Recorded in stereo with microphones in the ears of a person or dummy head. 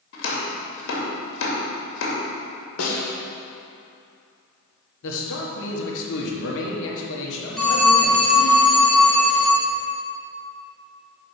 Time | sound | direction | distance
0.1 | chopping | 65° left (ahead or behind) | 2.5 m
2.8 | a snare drum | 80° left | 1.7 m
5.0 | a man speaking | 75° left (ahead or behind) | 1.7 m
7.6 | a phone ringing | 5° left (ahead or behind) | 0.8 m